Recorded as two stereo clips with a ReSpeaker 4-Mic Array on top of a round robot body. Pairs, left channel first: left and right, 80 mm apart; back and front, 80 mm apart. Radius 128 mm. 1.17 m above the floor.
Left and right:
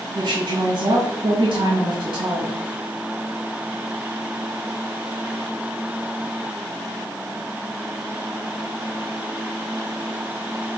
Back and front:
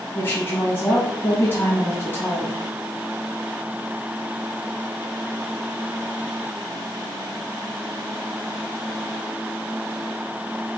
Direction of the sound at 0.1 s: 115° right.